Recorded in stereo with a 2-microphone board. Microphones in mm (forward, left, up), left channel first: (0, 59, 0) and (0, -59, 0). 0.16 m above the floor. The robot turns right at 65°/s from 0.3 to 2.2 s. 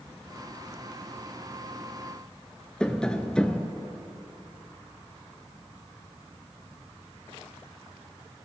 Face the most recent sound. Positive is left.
turn(degrees=5)  # may be behind; listen again after turning